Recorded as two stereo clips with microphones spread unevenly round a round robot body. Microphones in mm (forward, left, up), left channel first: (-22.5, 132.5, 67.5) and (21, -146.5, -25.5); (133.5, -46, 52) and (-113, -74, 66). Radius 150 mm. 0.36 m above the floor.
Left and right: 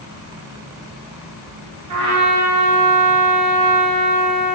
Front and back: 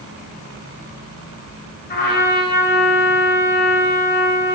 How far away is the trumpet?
About 1.1 m.